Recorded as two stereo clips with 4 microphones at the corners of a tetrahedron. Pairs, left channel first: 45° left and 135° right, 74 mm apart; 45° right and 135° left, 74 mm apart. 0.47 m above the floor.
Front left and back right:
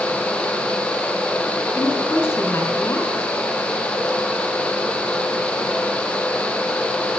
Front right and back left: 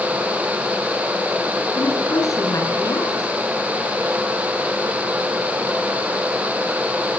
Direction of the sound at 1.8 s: 10° right.